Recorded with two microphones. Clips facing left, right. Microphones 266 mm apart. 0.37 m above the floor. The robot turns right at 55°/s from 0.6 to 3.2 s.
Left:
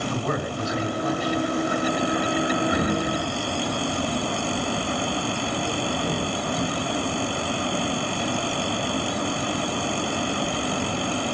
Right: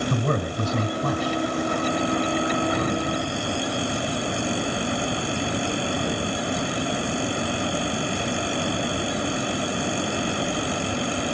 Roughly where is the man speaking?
Behind right.